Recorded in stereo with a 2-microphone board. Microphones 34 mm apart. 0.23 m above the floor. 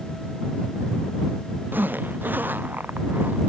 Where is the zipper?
75° right (ahead or behind).